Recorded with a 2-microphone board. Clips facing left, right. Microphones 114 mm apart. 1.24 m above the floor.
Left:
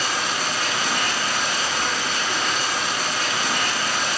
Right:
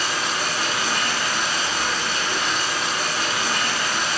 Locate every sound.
0.0 s running water: 20° left (ahead or behind), 0.9 m